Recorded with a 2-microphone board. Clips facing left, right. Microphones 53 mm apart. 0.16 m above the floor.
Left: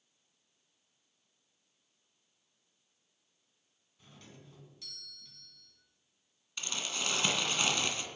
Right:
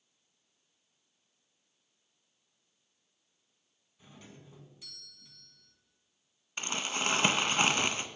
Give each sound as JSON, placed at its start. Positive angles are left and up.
{"t": 4.0, "sound": "a doorbell", "side_deg": -10, "distance_m": 1.7}
{"t": 6.6, "sound": "crumpling", "side_deg": -35, "distance_m": 0.8}